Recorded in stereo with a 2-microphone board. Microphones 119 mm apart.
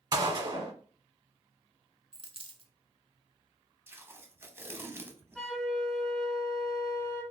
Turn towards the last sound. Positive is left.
turn(degrees=5)  # may be behind; listen again after turning